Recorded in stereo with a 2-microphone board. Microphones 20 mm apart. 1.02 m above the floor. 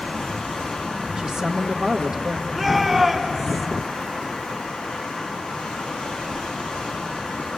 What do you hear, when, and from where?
0.0 s running water: 50° left (ahead or behind), 5 m
1.2 s a man speaking: 50° right (ahead or behind), 1.0 m
2.5 s a shout: 5° right (ahead or behind), 4.5 m